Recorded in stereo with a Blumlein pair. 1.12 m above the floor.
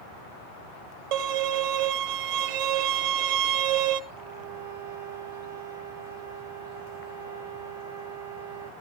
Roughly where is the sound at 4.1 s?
Right.